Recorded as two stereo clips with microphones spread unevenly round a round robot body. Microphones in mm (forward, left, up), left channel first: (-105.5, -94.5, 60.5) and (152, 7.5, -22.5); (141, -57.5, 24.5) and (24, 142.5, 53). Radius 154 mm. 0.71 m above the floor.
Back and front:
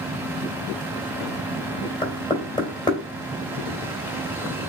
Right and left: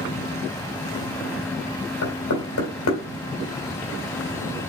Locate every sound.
2.0 s knocking: 85° right, 2.5 m